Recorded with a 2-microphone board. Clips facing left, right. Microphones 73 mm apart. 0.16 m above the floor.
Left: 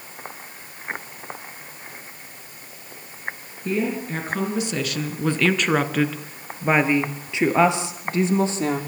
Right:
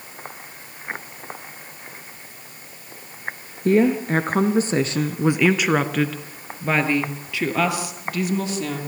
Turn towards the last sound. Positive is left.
turn(degrees=35)  # may be behind; listen again after turning